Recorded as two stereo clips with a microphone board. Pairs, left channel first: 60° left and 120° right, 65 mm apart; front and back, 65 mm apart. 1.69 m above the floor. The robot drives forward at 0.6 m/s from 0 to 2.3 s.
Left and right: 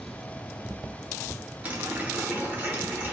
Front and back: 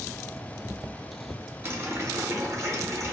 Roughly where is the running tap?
Behind.